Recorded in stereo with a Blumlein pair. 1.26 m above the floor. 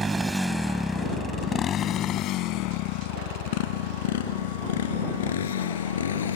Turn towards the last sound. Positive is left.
turn(degrees=65)